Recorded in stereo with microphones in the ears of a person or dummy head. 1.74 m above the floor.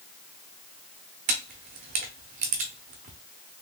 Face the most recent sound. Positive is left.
turn(degrees=-40)  # may be behind; listen again after turning